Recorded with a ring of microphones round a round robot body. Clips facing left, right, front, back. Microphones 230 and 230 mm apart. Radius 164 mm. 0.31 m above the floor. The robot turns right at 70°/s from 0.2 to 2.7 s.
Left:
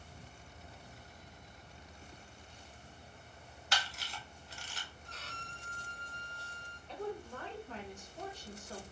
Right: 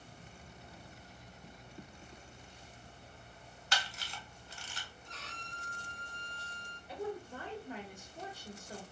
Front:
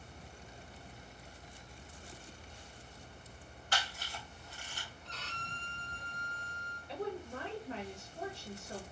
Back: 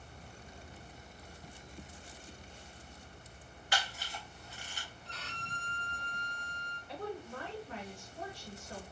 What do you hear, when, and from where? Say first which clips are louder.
3.7 s a camera shutter: even, back 2 dB; 100° right, 0.6 m
5.0 s a violin: even, back 2 dB; 110° left, 1.1 m
6.9 s a woman speaking: right 1 dB, front 2 dB; 25° right, 0.9 m